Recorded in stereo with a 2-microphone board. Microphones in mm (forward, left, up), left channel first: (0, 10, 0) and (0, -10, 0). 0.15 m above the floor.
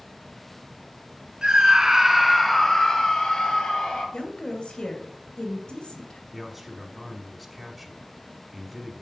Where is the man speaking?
Centre (ahead or behind), 1.5 m.